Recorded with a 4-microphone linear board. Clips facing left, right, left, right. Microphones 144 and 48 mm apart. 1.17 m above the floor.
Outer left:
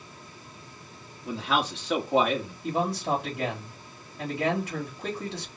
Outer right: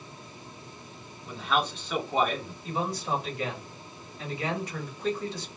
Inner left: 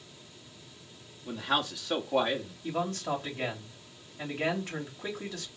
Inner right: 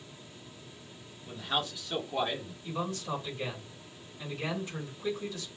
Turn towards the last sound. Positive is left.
turn(degrees=65)  # may be behind; listen again after turning